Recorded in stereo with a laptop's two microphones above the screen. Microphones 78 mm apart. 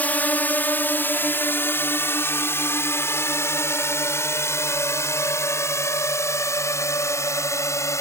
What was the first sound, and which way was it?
A drone, 20° left (ahead or behind).